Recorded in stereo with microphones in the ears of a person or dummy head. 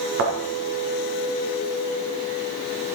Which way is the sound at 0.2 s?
60° right (ahead or behind).